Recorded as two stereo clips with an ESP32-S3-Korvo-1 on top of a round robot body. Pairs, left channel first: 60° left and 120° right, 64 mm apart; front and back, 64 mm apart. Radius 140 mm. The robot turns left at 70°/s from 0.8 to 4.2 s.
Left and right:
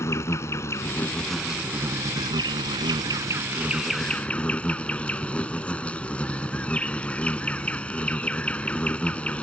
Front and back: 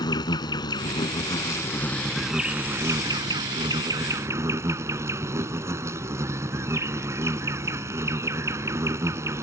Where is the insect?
10° left; by 9.4 s 130° left.